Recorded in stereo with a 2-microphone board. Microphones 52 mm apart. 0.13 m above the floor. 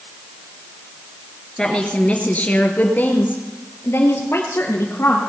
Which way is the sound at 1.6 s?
15° left (ahead or behind).